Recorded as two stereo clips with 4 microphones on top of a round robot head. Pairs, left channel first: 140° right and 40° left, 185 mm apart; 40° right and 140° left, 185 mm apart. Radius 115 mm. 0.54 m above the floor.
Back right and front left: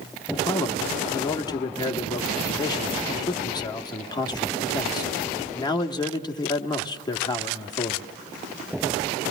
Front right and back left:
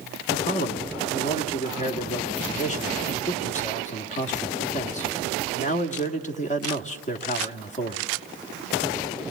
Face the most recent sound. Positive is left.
turn(degrees=-80)